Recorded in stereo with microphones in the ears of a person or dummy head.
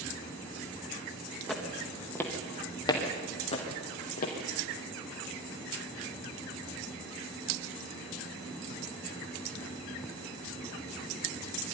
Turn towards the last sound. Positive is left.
turn(degrees=50)  # may be behind; listen again after turning